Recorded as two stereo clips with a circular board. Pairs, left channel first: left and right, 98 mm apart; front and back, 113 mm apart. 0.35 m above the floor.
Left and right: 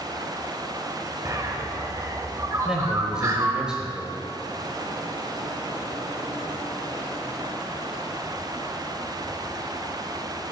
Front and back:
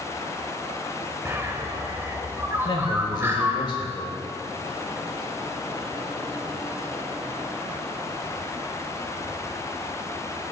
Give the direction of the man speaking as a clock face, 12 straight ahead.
12 o'clock.